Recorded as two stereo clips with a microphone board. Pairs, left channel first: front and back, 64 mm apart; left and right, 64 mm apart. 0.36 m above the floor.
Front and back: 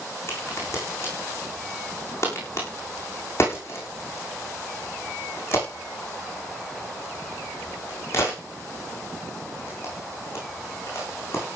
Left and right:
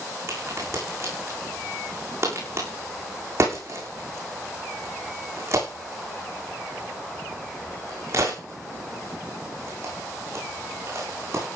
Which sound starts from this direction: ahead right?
A crack, at 0.3 s.